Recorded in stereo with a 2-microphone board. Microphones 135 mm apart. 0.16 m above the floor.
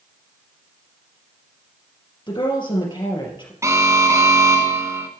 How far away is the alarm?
About 1.6 m.